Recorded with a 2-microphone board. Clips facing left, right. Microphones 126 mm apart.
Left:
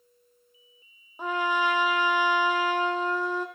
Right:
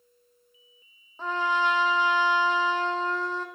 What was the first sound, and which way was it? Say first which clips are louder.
A trumpet: even; 15° left (ahead or behind).